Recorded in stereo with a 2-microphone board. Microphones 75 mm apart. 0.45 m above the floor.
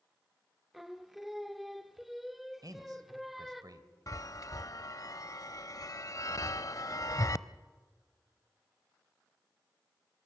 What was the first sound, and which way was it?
Singing, centre (ahead or behind).